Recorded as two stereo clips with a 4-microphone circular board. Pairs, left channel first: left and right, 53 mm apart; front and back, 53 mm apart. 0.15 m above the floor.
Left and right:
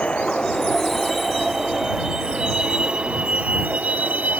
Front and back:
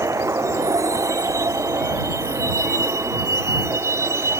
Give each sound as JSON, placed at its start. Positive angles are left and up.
{"t": 0.0, "sound": "a vehicle", "azimuth_deg": 160}